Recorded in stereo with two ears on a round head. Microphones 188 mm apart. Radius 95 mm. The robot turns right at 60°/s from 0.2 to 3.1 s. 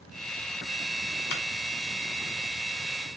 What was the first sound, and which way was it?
A clap, 70° left (ahead or behind).